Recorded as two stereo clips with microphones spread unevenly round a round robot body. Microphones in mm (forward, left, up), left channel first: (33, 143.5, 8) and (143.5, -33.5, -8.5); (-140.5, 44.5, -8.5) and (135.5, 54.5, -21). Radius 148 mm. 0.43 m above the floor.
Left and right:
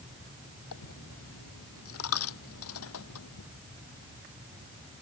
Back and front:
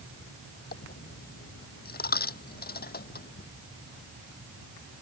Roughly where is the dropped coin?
Behind left.